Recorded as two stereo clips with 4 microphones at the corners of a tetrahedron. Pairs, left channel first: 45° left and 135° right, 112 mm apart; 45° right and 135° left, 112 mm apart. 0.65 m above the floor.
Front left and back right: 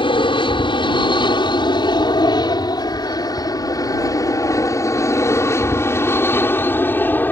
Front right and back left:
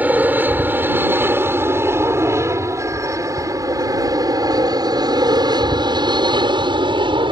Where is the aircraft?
65° left; by 7.3 s 115° left.